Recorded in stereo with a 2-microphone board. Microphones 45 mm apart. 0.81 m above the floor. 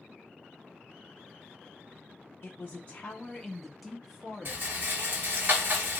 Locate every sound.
2.4 s a man speaking: 45° left (ahead or behind), 0.7 m; by 5.5 s 25° right (ahead or behind), 1.5 m
4.5 s a rattle: 45° right (ahead or behind), 1.5 m